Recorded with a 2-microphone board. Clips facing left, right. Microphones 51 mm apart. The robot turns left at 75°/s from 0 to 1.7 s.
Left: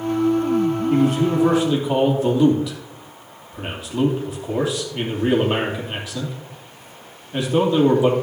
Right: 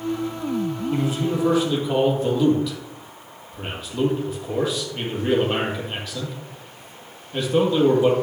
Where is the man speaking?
70° left, 3 m; by 8.1 s 10° left, 3 m.